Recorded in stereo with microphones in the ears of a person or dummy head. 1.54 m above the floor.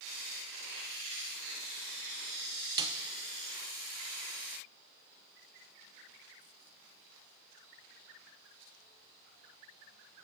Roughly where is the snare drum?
Right.